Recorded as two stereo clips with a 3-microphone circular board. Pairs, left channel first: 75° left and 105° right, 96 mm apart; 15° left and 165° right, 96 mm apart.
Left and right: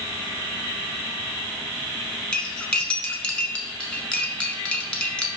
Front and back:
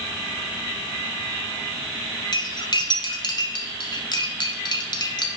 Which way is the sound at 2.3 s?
Straight ahead.